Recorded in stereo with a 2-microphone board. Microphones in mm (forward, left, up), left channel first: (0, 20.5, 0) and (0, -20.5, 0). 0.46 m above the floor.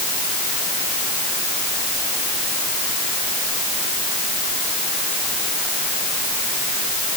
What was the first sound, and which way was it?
Only background noise.